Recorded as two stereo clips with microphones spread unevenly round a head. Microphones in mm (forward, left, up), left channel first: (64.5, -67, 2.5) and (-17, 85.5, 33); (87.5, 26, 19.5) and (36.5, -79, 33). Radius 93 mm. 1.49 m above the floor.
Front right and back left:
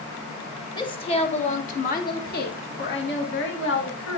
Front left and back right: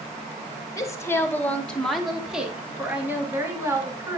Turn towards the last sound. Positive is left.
turn(degrees=-50)